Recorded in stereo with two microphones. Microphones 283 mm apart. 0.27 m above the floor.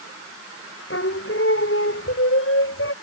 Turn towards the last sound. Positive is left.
turn(degrees=45)  # may be behind; listen again after turning